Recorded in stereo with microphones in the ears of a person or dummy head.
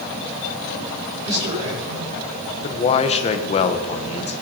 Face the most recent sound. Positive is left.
turn(degrees=30)  # may be behind; listen again after turning